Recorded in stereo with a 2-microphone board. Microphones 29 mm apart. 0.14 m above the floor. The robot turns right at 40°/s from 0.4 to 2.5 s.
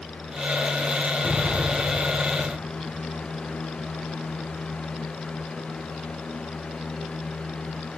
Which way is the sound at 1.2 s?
60° left (ahead or behind).